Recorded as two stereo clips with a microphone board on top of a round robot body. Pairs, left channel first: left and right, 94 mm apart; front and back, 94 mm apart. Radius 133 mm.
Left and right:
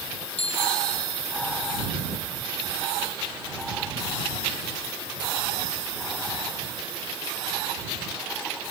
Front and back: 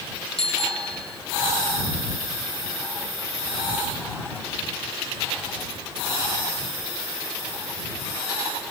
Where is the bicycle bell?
80° left.